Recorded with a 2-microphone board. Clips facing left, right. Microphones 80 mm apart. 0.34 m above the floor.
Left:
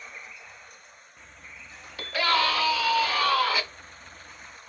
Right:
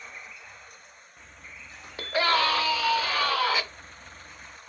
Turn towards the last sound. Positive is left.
turn(degrees=-25)  # may be behind; listen again after turning